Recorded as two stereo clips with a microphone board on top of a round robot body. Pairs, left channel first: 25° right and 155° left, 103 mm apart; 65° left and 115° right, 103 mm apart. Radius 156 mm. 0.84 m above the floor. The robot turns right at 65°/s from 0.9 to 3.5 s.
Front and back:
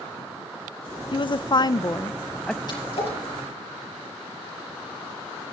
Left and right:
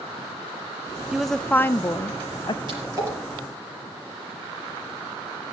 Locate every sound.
1.1 s a woman speaking: 30° right, 0.6 m; by 2.6 s 65° left, 0.6 m
2.7 s a splash: 70° right, 6 m; by 3.2 s 40° right, 6 m